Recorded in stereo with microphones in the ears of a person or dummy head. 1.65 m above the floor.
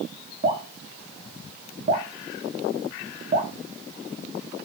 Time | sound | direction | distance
0.4 | dripping | 40° right (ahead or behind) | 1.0 m